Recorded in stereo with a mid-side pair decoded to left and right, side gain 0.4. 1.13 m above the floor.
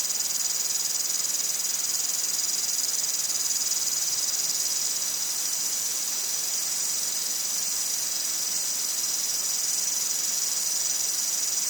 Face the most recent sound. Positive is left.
turn(degrees=-20)